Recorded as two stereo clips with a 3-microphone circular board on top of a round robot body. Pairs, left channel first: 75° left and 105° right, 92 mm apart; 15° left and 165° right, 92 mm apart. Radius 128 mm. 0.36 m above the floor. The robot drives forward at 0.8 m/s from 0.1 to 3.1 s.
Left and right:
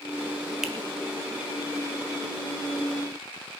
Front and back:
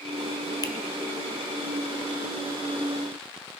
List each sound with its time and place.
0.6 s a finger snap: 20° right, 1.1 m; by 0.7 s 25° right, 1.0 m